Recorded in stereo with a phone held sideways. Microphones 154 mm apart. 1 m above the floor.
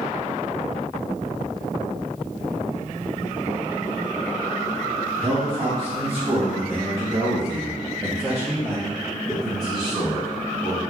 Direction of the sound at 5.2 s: 40° right (ahead or behind).